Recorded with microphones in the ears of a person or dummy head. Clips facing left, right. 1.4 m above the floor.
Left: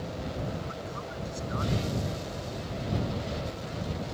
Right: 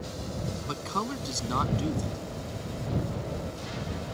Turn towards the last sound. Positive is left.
turn(degrees=-75)  # may be behind; listen again after turning